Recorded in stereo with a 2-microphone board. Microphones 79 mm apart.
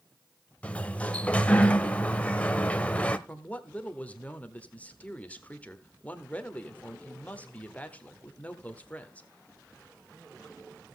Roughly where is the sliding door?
Centre.